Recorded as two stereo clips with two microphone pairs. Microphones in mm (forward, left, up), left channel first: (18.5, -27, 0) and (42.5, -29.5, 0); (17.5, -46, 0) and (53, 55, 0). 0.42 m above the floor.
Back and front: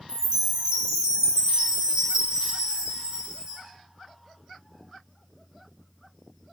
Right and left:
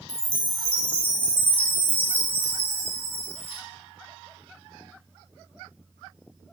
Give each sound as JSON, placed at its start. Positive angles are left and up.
{"t": 0.1, "sound": "a chime", "azimuth_deg": 15, "distance_m": 0.5}